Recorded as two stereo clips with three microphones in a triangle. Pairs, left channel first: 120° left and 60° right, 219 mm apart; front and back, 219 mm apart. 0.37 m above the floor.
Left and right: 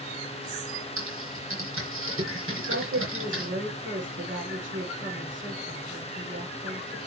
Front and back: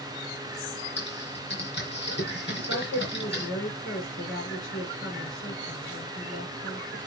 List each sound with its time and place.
1.0 s typing on a keyboard: 35° right, 3.5 m
2.5 s a woman speaking: 30° right, 5 m